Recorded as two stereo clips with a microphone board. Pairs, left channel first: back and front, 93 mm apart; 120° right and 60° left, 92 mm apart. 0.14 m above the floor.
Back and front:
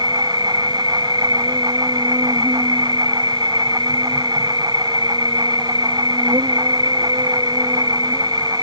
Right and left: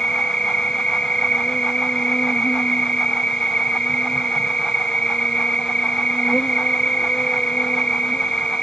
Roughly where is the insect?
Ahead right.